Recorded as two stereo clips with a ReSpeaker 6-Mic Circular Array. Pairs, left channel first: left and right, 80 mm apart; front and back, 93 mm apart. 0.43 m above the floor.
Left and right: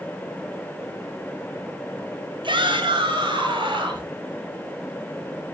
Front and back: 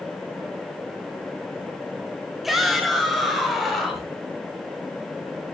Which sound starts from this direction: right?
A shout, at 2.4 s.